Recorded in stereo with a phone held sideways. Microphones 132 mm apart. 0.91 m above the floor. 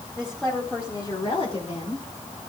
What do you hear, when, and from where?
0.2 s a woman speaking: 10° right (ahead or behind), 2 m; by 2.0 s 65° left (ahead or behind), 2.5 m